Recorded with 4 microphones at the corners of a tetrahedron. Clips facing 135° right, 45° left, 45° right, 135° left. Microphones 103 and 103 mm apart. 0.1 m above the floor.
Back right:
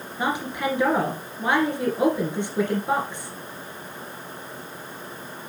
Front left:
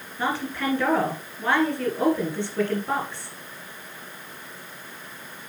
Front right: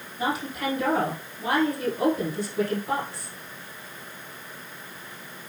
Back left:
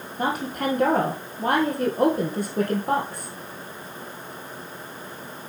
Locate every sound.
0.2 s a woman speaking: 155° left, 2 m